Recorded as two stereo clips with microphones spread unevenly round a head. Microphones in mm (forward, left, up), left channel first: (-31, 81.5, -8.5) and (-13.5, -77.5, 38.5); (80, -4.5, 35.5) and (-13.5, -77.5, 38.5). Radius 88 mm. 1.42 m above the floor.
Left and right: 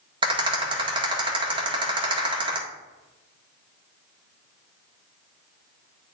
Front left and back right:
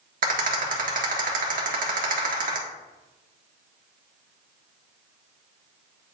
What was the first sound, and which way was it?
A rattle, 145° right.